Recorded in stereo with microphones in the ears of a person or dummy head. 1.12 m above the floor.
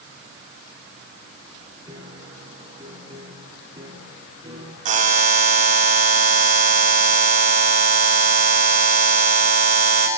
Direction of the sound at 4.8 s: 45° right (ahead or behind).